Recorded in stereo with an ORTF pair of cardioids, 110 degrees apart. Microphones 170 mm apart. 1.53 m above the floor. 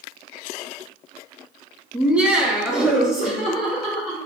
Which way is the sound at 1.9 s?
10° right.